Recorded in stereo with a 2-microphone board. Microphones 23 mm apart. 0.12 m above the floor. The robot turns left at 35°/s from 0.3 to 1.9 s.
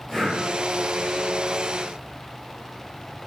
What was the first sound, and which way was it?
Breathing, 5° left (ahead or behind).